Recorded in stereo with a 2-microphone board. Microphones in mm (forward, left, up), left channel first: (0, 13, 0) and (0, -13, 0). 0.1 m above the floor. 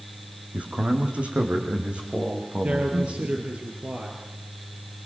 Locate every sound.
0.5 s a man speaking: 60° right (ahead or behind), 4.5 m; by 3.5 s 45° right (ahead or behind), 7 m
2.6 s a man speaking: 50° right (ahead or behind), 2.5 m